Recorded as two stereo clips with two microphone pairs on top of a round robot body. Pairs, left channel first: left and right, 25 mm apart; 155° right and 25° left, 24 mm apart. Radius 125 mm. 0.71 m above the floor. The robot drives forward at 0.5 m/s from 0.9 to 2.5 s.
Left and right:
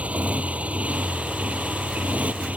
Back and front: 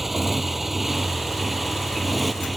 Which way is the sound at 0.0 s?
55° right.